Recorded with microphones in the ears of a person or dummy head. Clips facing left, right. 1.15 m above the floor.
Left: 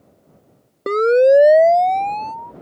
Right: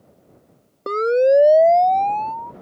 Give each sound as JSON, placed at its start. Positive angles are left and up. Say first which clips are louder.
{"t": 0.9, "sound": "a siren", "louder": "left 4 dB", "side_deg": 25}